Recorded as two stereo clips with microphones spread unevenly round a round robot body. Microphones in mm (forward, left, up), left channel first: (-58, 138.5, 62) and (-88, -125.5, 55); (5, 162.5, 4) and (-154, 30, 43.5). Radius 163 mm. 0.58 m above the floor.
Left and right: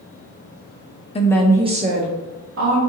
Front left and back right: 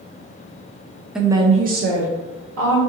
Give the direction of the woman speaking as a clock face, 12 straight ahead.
9 o'clock.